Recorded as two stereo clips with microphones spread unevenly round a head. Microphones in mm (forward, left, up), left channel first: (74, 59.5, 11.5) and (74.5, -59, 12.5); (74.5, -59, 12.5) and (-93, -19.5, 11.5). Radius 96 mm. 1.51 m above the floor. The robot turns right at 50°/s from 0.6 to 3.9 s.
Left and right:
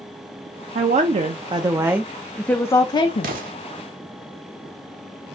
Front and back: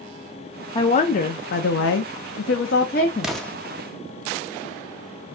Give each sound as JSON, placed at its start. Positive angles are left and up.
{"t": 0.8, "sound": "a woman speaking", "azimuth_deg": -75, "distance_m": 0.7}
{"t": 3.2, "sound": "an explosion", "azimuth_deg": -105, "distance_m": 1.0}